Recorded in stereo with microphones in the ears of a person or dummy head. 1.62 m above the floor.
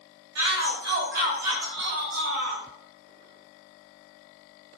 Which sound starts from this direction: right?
A shout, at 0.3 s.